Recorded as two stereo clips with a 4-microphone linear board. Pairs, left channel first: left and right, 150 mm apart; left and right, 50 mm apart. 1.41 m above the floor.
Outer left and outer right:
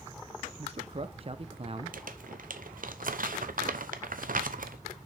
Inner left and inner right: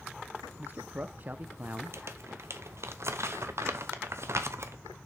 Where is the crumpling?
65° right (ahead or behind), 0.8 m.